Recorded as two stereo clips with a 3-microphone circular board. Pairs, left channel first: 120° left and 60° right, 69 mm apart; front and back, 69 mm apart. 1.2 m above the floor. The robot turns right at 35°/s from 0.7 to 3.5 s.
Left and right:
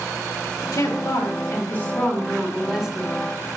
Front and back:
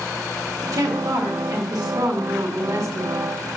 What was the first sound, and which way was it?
A woman speaking, 145° left.